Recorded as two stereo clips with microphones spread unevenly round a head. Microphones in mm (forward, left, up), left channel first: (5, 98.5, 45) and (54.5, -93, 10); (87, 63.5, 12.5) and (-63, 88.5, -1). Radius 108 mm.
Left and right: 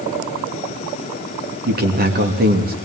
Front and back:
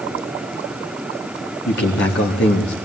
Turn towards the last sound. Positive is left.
turn(degrees=-35)